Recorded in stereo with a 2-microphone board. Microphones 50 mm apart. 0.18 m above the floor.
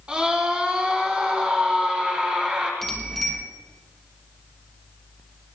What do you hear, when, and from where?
0.1 s a scream: 20° right (ahead or behind), 7.5 m
2.8 s a bicycle bell: 10° left (ahead or behind), 3.5 m